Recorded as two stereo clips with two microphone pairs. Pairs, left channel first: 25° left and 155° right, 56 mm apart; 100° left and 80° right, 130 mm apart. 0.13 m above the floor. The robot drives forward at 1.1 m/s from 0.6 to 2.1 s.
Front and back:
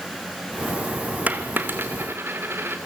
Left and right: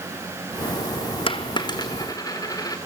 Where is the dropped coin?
150° left, 1.2 m; by 2.8 s 160° left, 2 m.